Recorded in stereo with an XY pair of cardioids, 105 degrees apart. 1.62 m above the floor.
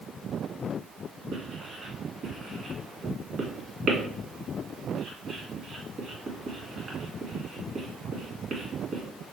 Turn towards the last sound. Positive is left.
turn(degrees=-45)